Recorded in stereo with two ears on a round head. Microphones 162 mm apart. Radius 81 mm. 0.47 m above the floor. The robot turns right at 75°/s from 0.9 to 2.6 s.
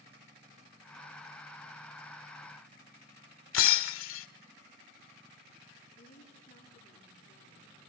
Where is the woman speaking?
40° left (ahead or behind), 9.5 m.